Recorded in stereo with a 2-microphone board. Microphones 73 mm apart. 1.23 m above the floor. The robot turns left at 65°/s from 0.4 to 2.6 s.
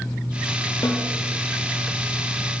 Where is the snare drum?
55° left (ahead or behind), 1.0 m; by 1.1 s 45° left (ahead or behind), 1.0 m.